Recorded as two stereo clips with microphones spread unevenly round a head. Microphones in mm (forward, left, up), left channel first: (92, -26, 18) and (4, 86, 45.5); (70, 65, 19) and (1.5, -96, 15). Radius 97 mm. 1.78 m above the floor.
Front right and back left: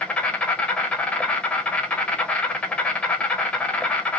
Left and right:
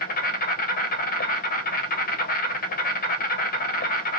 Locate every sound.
0.0 s an insect: 35° left, 0.7 m